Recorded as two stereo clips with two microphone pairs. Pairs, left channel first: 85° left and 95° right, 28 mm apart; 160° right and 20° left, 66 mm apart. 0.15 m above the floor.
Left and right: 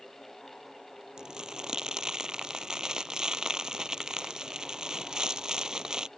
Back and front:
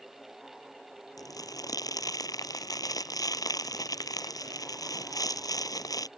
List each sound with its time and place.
1.2 s crumpling: 160° right